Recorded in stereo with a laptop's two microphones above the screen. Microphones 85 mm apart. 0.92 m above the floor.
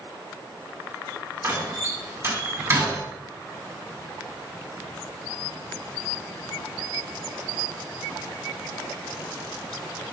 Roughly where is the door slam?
Right.